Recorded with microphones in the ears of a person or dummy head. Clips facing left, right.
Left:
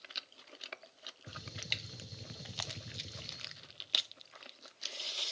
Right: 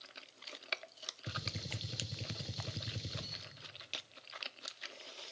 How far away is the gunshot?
About 0.6 m.